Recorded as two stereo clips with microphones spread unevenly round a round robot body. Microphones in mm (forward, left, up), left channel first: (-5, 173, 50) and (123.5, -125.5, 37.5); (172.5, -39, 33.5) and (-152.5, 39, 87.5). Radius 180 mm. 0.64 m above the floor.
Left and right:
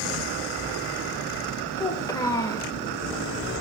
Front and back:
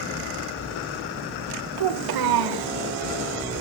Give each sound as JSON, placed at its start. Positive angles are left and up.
{"t": 1.8, "sound": "a child speaking", "azimuth_deg": -165, "distance_m": 1.8}